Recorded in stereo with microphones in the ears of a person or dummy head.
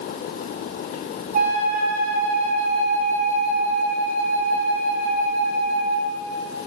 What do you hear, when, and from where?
1.3 s a flute: 45° right (ahead or behind), 0.6 m